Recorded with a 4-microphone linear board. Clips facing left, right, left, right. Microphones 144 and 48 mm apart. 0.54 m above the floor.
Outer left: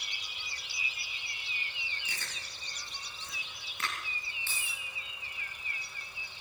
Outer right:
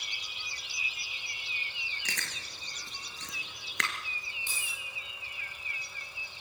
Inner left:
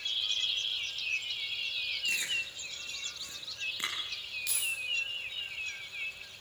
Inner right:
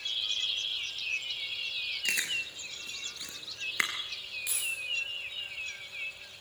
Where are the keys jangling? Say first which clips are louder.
Even, even; 15° right (ahead or behind), 9 m.